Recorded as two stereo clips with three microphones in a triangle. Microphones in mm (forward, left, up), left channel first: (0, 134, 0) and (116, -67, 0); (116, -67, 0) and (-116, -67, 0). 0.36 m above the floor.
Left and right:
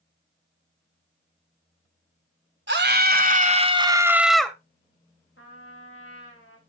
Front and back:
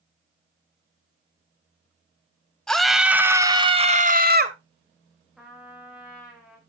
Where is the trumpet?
90° left, 6.5 m.